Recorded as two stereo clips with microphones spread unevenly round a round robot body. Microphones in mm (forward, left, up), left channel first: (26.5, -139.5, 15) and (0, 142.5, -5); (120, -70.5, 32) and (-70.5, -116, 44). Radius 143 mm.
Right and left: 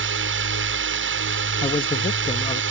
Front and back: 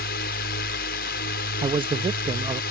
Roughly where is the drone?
Ahead left.